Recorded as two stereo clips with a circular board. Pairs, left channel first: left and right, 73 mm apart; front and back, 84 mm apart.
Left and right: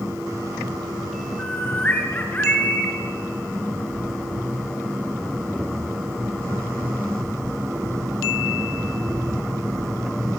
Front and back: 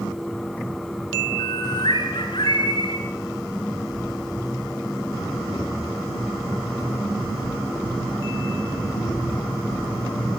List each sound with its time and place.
1.4 s a bird: 25° left, 7.5 m